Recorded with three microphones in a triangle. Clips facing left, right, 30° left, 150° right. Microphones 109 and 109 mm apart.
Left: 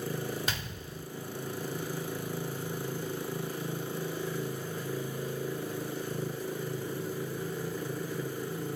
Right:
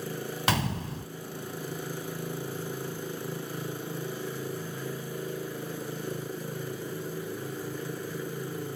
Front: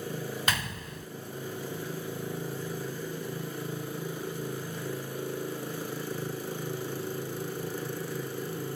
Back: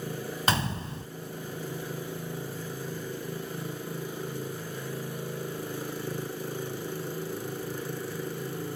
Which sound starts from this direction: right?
A gunshot, at 0.5 s.